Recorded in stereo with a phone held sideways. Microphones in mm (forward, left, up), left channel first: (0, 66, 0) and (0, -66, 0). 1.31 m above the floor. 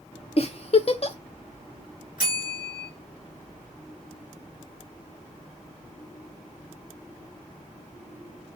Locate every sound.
0.4 s a giggle: 50° left (ahead or behind), 0.6 m
2.2 s a bell: 85° left, 1.9 m